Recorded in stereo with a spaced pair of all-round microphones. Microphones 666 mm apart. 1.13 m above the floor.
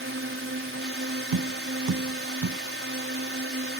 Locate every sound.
0.0 s a drone: 20° right (ahead or behind)
1.3 s tapping: 35° right (ahead or behind)